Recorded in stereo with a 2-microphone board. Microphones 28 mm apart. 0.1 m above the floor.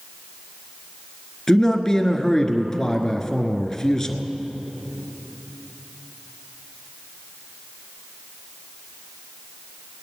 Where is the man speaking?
20° left (ahead or behind), 1.1 m.